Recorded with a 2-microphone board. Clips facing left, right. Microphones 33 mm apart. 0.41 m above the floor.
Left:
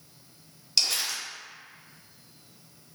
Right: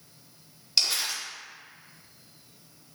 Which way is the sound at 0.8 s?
5° right (ahead or behind).